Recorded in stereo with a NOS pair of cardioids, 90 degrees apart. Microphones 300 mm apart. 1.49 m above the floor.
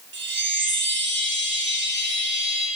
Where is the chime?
40° right, 0.7 m.